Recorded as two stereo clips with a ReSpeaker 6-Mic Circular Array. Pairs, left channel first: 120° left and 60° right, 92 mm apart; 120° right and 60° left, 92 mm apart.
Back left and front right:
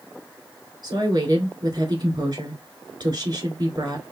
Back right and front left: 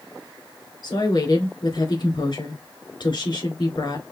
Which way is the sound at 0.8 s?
100° right.